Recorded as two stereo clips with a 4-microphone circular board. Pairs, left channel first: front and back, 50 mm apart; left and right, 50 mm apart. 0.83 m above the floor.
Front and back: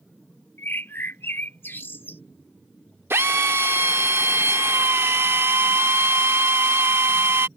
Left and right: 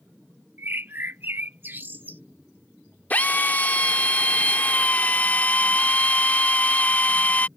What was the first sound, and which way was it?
A bird, 40° right.